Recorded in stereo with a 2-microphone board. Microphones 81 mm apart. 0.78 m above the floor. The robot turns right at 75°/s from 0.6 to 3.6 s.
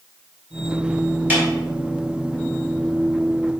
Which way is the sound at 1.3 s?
25° right (ahead or behind).